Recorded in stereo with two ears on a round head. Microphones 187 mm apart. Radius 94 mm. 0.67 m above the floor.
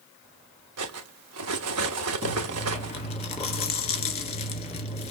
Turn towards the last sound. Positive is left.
turn(degrees=30)  # may be behind; listen again after turning